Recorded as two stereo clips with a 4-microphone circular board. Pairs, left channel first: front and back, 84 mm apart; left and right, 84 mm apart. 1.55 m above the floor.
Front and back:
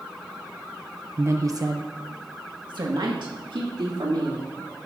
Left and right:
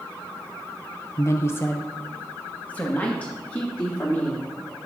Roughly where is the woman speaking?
Behind left.